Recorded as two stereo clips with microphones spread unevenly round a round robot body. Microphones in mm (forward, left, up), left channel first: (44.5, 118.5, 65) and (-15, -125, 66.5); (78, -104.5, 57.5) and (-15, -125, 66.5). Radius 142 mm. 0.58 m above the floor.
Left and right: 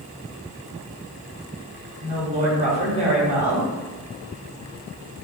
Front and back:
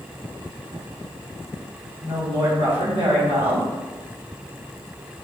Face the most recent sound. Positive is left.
turn(degrees=-165)